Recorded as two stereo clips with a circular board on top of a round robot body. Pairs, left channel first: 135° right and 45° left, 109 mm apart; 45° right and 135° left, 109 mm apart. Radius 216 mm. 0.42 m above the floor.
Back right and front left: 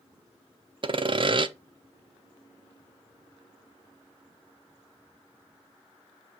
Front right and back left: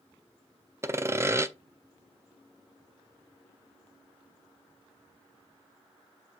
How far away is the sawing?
About 1.0 m.